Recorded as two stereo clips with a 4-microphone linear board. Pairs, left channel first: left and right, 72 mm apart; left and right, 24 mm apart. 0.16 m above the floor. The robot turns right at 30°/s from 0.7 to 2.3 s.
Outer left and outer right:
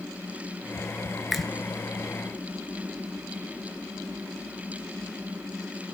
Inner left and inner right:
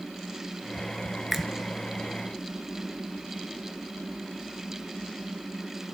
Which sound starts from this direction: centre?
A finger snap, at 1.3 s.